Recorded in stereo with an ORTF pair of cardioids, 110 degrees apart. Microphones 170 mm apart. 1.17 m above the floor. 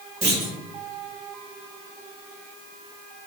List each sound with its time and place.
0.2 s a clunk: 25° right, 1.3 m